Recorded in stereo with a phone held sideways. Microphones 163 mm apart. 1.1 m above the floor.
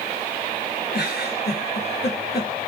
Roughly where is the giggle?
Left.